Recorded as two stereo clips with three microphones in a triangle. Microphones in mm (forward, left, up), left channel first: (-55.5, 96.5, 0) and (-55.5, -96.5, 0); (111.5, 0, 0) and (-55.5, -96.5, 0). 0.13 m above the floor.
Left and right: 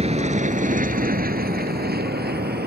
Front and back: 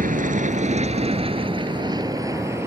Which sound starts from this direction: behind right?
An aircraft, at 0.0 s.